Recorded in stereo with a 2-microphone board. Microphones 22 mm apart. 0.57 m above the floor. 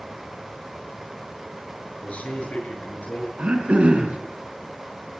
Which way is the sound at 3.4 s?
70° right (ahead or behind).